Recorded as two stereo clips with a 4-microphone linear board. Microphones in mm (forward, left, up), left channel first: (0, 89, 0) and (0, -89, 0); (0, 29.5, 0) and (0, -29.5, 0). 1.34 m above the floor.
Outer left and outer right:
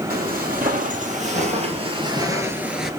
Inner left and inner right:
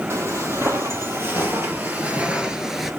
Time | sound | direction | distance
0.1 | footsteps | 55° right (ahead or behind) | 2.5 m